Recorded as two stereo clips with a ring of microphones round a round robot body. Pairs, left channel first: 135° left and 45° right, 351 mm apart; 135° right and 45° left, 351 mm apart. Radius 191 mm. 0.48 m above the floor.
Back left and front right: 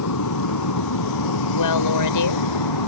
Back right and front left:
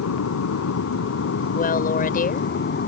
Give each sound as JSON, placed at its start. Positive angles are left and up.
{"t": 0.0, "sound": "an aircraft", "azimuth_deg": 175}
{"t": 1.6, "sound": "a woman speaking", "azimuth_deg": 160}